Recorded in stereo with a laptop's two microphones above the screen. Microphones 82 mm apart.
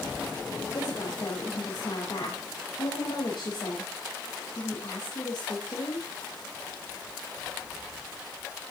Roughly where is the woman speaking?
Left.